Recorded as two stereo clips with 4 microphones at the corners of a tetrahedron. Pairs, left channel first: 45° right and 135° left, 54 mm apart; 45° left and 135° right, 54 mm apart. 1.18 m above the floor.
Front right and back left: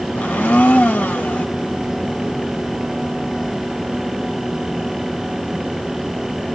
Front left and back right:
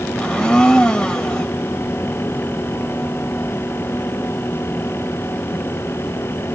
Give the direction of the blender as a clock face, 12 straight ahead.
1 o'clock.